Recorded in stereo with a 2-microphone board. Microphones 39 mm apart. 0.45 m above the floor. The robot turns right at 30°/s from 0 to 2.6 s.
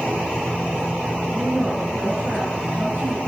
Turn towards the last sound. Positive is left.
turn(degrees=-120)